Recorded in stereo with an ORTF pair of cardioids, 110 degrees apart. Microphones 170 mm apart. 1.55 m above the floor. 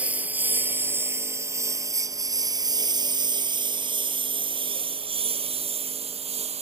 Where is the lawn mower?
10° right; by 6.6 s 40° right.